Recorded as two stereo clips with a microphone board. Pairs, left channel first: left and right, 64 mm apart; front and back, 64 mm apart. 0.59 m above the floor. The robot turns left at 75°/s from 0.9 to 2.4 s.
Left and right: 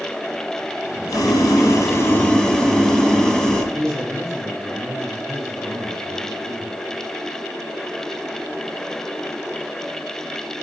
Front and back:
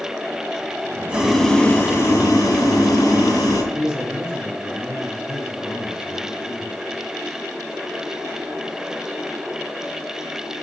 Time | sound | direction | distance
1.1 | boiling | 110° left | 2 m
3.7 | a man speaking | 45° right | 5 m